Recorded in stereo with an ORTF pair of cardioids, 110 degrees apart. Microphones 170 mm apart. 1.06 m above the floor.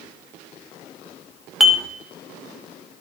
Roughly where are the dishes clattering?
Ahead.